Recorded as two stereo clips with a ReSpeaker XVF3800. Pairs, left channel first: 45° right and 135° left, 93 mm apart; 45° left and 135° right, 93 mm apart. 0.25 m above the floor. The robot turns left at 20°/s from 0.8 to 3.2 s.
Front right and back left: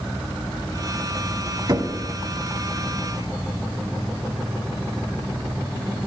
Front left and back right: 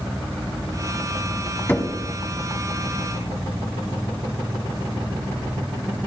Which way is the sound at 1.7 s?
110° left.